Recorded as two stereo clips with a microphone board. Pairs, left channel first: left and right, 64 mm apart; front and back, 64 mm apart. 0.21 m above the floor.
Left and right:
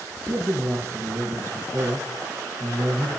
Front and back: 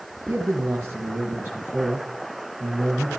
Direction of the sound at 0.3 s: 130° right.